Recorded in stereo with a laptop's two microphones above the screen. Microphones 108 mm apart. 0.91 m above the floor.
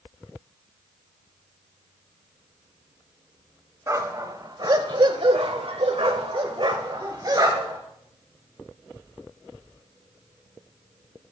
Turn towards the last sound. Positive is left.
turn(degrees=-35)  # may be behind; listen again after turning